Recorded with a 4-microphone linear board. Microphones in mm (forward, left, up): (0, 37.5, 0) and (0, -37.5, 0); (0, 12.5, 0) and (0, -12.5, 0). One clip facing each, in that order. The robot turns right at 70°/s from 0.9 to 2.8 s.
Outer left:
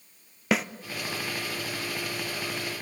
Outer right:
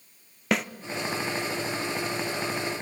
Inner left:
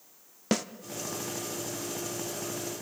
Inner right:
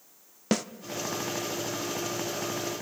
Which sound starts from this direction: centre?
A snare drum, at 0.5 s.